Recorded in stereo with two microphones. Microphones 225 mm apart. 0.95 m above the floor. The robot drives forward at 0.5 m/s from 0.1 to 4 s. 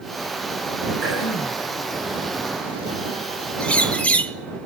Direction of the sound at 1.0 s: 65° left (ahead or behind).